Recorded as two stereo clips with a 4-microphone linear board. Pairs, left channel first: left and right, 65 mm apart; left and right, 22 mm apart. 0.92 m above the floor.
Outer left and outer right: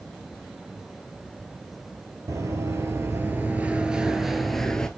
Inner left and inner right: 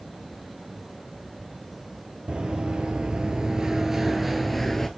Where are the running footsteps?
50° right (ahead or behind), 1.3 m; by 4.9 s 10° left (ahead or behind), 1.1 m.